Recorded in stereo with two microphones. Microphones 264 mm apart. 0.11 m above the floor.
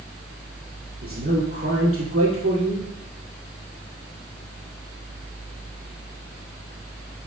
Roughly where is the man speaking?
Right.